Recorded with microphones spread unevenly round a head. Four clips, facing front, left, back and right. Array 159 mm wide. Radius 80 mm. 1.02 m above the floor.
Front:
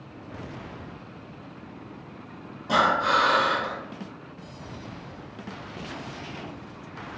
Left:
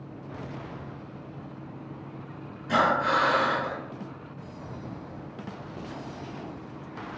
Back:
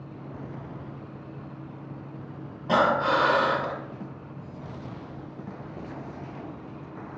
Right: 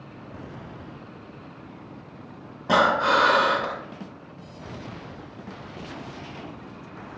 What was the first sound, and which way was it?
Breathing, 105° right.